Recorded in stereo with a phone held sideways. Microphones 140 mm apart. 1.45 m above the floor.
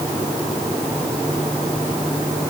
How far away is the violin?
I don't hear a violin.